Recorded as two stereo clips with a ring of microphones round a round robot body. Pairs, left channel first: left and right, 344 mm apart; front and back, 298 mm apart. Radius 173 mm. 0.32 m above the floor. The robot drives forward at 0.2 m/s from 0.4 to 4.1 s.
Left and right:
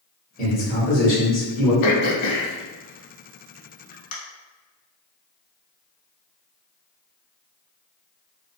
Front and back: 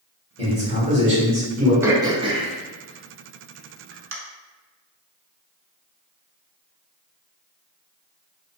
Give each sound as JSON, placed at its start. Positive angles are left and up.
{"t": 0.4, "sound": "a man speaking", "azimuth_deg": 130, "distance_m": 1.5}
{"t": 1.8, "sound": "throat clearing", "azimuth_deg": 95, "distance_m": 0.6}